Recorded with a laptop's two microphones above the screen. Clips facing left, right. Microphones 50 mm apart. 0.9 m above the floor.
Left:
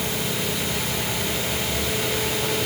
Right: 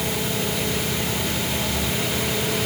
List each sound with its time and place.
Only background noise.